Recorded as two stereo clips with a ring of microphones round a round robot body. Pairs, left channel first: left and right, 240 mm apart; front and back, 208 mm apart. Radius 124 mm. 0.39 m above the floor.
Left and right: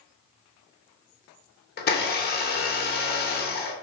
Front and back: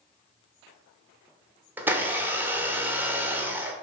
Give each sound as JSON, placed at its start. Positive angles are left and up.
{"t": 1.8, "sound": "a blender", "azimuth_deg": 105, "distance_m": 0.8}